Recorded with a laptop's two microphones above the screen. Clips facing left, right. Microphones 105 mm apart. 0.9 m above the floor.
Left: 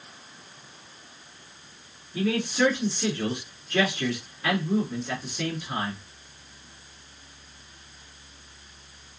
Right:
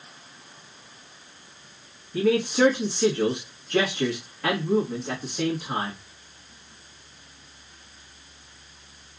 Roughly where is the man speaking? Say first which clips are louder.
Right 4 dB; right.